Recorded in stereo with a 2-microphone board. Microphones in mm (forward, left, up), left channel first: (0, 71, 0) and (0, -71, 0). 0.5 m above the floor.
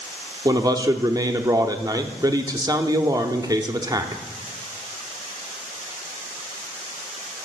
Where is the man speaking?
25° right (ahead or behind), 0.7 m.